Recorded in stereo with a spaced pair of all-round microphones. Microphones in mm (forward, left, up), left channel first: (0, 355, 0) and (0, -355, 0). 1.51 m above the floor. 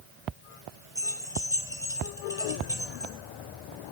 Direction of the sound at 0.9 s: 5° right (ahead or behind).